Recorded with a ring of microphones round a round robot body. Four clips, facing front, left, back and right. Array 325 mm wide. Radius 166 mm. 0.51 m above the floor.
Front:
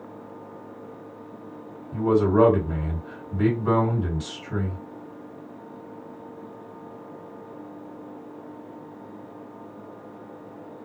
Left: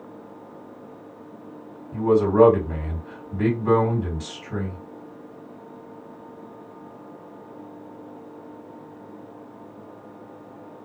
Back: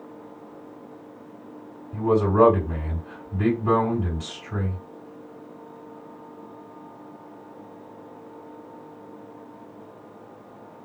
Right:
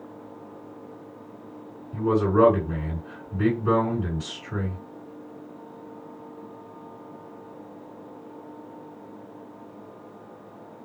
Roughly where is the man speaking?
Ahead left.